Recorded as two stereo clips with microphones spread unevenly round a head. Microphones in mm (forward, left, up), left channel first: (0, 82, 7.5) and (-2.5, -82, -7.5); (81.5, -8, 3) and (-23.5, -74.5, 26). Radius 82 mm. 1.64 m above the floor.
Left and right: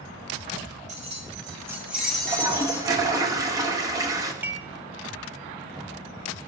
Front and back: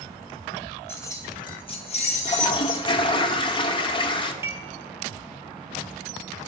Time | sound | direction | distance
0.9 | keys jangling | 40° right | 1.5 m
2.2 | a toilet flushing | 20° right | 1.0 m
4.4 | dishes clattering | 165° right | 0.8 m